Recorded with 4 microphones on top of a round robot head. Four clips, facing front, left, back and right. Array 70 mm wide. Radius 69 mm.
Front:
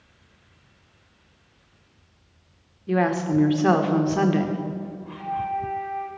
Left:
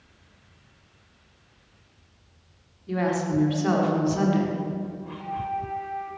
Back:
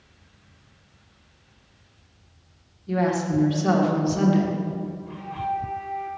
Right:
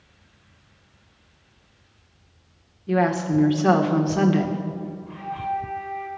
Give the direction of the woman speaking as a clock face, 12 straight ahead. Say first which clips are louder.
Right 4 dB, front 1 dB; 1 o'clock.